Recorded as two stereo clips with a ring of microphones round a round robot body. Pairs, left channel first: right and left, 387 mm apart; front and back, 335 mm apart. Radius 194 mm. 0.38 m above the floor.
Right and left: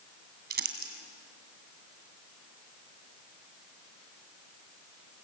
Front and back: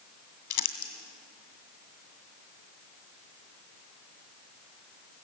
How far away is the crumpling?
About 2.5 m.